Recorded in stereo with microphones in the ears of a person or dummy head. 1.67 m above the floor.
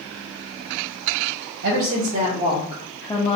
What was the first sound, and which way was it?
A woman speaking, 60° right (ahead or behind).